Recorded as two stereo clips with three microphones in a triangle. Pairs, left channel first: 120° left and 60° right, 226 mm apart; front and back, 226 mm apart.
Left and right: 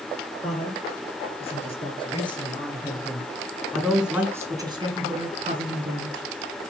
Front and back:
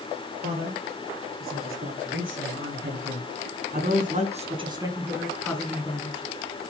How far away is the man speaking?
About 5 m.